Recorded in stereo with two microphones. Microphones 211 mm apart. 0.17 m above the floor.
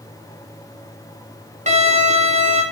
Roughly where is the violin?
Right.